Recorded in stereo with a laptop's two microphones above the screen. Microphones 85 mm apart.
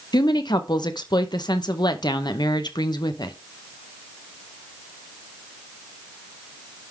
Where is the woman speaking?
60° left (ahead or behind), 0.8 m.